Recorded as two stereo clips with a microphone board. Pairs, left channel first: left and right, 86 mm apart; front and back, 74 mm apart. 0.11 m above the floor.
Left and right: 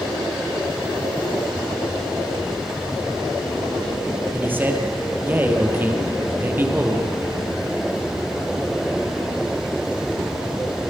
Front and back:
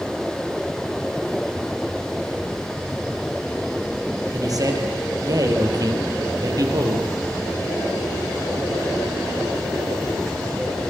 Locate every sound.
4.3 s a man speaking: 155° right, 3.5 m